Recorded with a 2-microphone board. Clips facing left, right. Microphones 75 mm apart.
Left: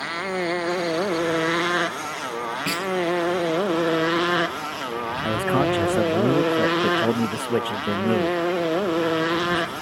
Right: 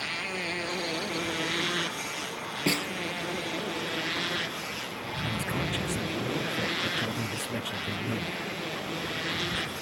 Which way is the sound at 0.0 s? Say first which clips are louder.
Left 9 dB; 45° left (ahead or behind).